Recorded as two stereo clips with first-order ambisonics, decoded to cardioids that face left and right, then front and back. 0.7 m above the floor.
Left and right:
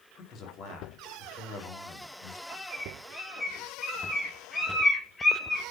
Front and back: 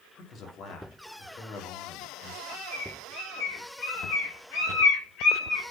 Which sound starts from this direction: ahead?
A bird, at 2.5 s.